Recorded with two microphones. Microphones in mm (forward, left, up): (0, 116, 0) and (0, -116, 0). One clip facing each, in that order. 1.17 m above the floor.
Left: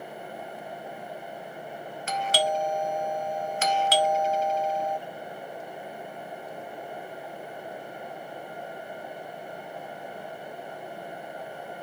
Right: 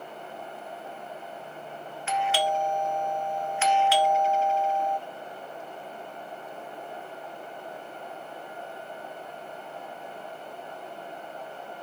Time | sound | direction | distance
2.1 | a doorbell | 40° left (ahead or behind) | 0.7 m